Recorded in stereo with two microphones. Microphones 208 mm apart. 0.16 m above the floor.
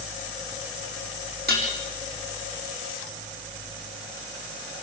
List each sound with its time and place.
1.5 s dishes clattering: 50° right (ahead or behind), 6 m